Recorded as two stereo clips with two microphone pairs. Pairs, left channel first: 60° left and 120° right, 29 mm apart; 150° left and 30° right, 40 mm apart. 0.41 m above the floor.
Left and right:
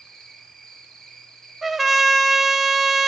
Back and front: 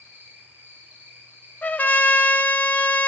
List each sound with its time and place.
0.0 s an insect: 10° right, 4.5 m
1.6 s a trumpet: 160° left, 1.0 m